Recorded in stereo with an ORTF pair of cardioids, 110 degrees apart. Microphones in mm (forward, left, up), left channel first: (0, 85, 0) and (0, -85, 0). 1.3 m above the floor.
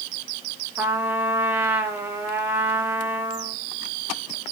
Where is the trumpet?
10° right, 1.9 m.